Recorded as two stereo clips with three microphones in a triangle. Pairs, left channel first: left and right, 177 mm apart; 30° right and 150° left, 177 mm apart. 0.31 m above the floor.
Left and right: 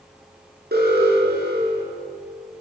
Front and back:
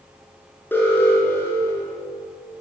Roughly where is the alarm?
Right.